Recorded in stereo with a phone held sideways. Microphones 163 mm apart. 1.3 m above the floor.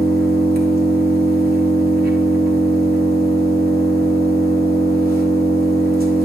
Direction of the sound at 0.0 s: 70° right (ahead or behind).